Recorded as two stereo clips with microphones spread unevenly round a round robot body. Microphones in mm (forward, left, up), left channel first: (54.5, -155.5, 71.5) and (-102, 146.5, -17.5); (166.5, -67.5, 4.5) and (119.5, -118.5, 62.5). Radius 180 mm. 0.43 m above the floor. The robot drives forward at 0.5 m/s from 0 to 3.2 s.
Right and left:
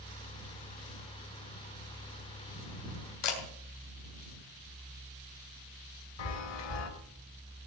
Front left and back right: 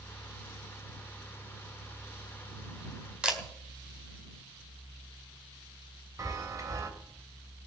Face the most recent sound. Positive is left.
turn(degrees=-65)